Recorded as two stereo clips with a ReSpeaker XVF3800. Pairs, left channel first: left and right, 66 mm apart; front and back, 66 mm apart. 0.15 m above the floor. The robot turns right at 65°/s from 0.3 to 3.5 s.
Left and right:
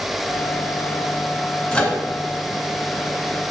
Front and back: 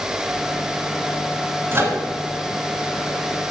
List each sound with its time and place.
1.7 s a microwave: 160° left, 1.4 m; by 2.0 s 175° left, 1.4 m